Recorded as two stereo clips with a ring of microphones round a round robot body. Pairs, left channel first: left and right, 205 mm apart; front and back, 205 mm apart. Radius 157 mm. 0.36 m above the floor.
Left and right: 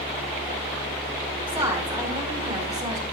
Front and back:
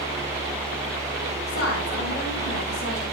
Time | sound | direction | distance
1.5 | a woman speaking | 25° right | 4 m